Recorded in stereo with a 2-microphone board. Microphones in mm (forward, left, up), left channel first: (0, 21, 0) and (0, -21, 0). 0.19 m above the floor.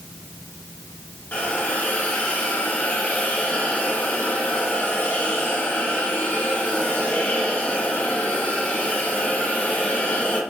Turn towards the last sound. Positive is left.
turn(degrees=35)  # may be behind; listen again after turning